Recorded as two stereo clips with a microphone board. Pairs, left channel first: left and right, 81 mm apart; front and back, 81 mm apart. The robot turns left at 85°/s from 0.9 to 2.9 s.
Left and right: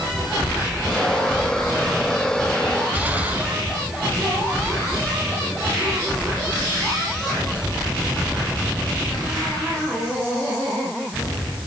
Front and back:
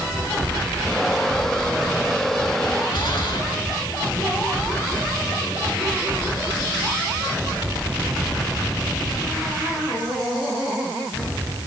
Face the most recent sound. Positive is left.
turn(degrees=-20)